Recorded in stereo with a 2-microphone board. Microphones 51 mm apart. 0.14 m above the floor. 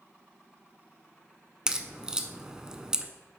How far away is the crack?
About 0.5 m.